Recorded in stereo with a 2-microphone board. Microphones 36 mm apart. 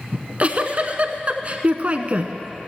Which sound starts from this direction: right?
A giggle, at 0.1 s.